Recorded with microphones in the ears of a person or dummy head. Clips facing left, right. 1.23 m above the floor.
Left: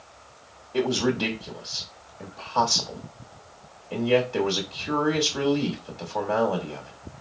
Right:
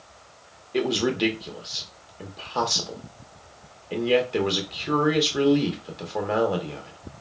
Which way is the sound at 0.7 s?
20° right (ahead or behind).